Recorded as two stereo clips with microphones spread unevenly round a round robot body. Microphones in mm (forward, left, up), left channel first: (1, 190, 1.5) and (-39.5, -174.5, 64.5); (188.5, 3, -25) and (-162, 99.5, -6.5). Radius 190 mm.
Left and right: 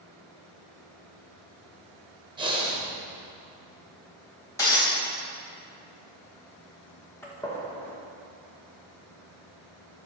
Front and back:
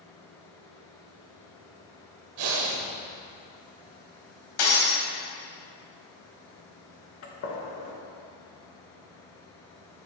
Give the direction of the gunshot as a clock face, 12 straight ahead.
12 o'clock.